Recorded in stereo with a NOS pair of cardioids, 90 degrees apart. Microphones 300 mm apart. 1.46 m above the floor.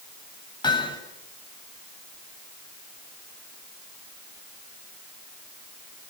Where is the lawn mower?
No lawn mower in this recording.